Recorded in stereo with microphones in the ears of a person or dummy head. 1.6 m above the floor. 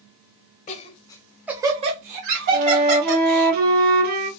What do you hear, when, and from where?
0.7 s laughter: 45° left (ahead or behind), 0.9 m; by 3.5 s 70° right (ahead or behind), 2 m
2.5 s a flute: 50° right (ahead or behind), 1.0 m